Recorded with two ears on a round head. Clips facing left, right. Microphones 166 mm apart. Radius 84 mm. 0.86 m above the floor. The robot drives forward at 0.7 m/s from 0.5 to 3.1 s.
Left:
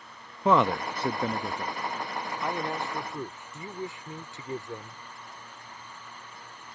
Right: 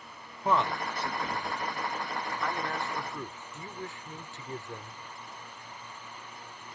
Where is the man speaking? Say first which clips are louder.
Left 5 dB; 60° left (ahead or behind); by 5.0 s 15° left (ahead or behind).